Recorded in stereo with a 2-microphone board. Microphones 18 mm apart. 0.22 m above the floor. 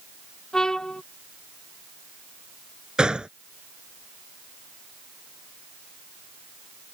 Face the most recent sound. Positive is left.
turn(degrees=-55)  # may be behind; listen again after turning